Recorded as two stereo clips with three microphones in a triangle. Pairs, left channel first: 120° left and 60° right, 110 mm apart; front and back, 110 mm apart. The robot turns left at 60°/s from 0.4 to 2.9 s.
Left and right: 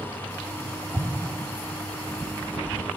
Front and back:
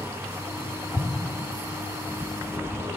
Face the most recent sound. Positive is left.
turn(degrees=-170)